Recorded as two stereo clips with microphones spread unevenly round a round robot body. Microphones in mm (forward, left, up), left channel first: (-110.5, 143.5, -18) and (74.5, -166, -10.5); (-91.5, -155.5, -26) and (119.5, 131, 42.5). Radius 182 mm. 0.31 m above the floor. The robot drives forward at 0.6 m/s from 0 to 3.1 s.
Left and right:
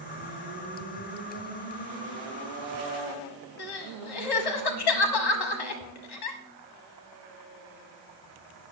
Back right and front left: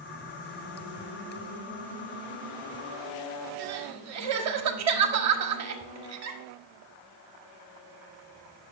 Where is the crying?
105° left, 1.2 m.